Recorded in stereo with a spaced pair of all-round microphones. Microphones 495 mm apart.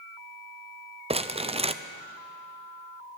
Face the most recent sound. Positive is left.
turn(degrees=-15)  # may be behind; listen again after turning